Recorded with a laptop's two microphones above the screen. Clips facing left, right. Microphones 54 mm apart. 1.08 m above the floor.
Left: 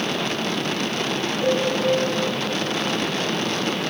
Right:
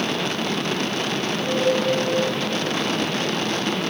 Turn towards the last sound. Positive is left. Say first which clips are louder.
# left 5 dB
turn(degrees=20)  # may be behind; listen again after turning